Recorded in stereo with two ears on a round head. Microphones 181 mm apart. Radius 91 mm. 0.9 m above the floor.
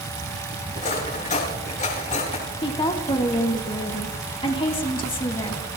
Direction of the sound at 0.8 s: 35° left (ahead or behind).